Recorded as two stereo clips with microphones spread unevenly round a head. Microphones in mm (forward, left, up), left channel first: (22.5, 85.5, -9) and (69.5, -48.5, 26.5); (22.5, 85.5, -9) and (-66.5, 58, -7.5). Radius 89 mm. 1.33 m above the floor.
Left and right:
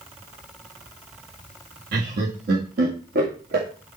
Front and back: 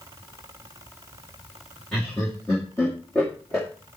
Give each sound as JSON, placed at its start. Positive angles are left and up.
{"t": 1.9, "sound": "laughter", "azimuth_deg": -65, "distance_m": 2.0}